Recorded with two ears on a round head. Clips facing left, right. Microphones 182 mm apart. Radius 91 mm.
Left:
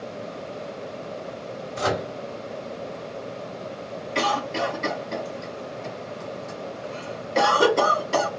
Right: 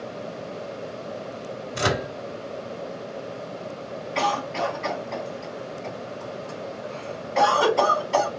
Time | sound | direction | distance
1.8 | a microwave | 40° right (ahead or behind) | 1.2 m
4.2 | a cough | 55° left (ahead or behind) | 2.5 m